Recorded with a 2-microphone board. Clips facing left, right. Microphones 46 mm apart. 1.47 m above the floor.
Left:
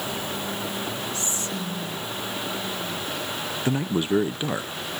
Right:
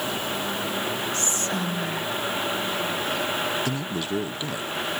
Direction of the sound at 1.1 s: 60° right (ahead or behind).